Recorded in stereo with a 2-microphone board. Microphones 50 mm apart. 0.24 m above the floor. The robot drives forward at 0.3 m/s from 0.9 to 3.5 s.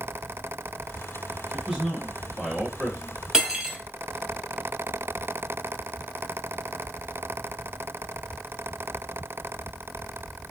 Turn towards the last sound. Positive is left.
turn(degrees=-15)  # may be behind; listen again after turning